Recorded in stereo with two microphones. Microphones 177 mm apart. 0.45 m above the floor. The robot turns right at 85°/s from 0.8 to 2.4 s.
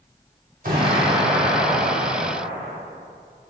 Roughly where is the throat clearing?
No throat clearing in this recording.